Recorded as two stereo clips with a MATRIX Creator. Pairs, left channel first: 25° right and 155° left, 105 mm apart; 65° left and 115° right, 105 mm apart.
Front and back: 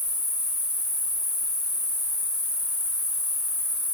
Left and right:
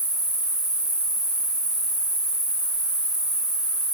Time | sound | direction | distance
0.0 | an insect | 140° left | 1.4 m